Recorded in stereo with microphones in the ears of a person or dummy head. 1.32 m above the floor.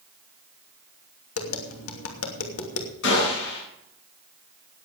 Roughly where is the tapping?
Left.